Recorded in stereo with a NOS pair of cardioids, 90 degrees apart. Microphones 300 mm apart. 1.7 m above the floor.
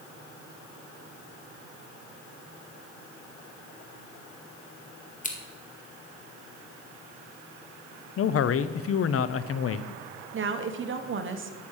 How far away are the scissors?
About 2 m.